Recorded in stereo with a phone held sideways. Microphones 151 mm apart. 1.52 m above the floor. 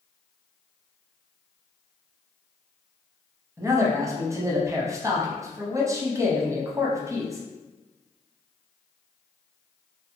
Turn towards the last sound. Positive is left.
turn(degrees=-20)  # may be behind; listen again after turning